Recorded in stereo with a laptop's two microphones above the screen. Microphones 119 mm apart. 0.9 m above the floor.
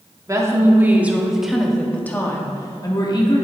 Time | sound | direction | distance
0.3 | a woman speaking | 25° right (ahead or behind) | 1.9 m